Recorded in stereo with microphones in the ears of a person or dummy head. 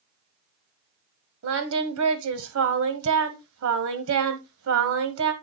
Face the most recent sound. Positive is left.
turn(degrees=-80)